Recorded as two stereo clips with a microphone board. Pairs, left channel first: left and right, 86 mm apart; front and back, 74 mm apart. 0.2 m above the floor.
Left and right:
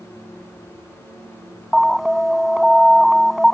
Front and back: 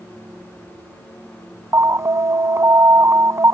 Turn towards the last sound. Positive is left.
turn(degrees=-175)